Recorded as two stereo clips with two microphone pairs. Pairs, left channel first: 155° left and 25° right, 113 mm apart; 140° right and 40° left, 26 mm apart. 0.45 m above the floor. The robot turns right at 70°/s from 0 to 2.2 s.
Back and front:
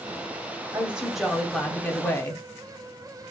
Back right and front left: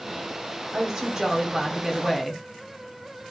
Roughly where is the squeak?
I don't hear a squeak.